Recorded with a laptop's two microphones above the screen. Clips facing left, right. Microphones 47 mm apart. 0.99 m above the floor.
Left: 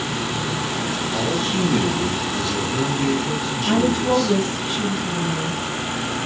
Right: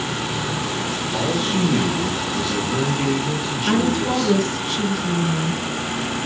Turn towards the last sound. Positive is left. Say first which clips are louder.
# left 1 dB
turn(degrees=-60)  # may be behind; listen again after turning